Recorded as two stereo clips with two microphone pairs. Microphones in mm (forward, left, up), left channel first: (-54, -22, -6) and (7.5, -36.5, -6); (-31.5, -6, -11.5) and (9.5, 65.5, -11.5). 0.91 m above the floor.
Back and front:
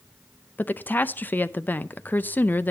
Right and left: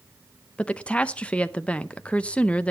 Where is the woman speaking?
175° left, 0.5 m.